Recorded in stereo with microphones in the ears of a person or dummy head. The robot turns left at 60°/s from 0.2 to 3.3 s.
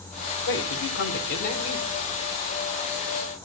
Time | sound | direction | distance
0.5 | a man speaking | 115° left | 4 m